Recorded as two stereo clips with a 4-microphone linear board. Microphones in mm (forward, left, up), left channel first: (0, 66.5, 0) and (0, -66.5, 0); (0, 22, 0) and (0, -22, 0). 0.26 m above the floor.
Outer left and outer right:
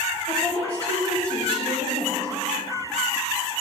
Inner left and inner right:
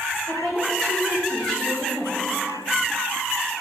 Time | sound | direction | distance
0.3 | a woman speaking | 20° left (ahead or behind) | 1.9 m